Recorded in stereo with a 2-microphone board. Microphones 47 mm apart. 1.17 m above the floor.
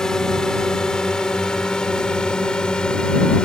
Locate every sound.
0.0 s a drone: 10° left (ahead or behind); by 3.5 s 20° left (ahead or behind)